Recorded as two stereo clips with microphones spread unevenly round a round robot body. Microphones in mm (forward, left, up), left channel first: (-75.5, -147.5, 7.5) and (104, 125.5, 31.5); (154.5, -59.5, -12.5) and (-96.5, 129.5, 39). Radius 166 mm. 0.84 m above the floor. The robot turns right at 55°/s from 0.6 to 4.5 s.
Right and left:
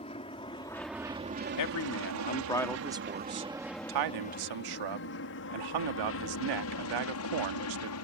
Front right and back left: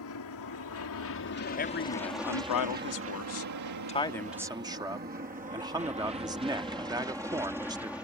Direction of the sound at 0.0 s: 55° right.